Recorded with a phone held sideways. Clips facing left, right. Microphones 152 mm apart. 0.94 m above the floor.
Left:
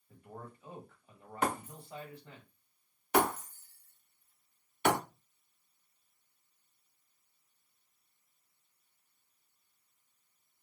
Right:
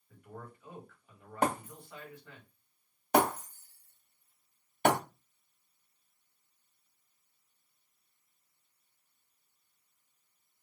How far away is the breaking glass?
About 2 m.